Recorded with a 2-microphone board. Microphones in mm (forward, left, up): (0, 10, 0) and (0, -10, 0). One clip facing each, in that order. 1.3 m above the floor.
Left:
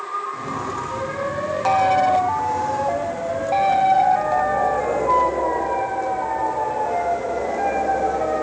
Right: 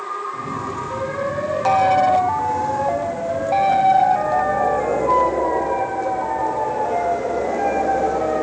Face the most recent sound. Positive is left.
turn(degrees=-20)  # may be behind; listen again after turning